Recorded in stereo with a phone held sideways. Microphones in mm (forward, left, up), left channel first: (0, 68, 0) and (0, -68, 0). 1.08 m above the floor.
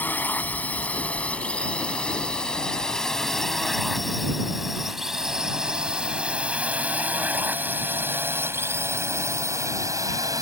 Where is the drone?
10° left (ahead or behind); by 10.4 s 25° right (ahead or behind).